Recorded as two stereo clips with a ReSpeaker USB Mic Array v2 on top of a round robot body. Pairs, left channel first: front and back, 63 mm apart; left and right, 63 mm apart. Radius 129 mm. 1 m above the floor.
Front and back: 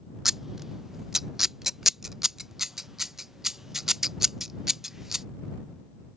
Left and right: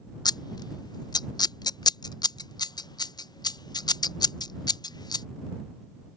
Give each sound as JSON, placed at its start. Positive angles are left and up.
{"t": 0.2, "sound": "scissors", "azimuth_deg": 95}